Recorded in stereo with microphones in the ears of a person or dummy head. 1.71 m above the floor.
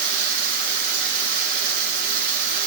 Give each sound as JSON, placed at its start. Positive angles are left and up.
{"t": 0.0, "sound": "running water", "side_deg": -55, "distance_m": 1.1}